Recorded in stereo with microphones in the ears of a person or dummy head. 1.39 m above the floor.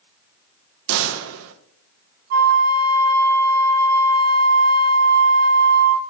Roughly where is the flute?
Right.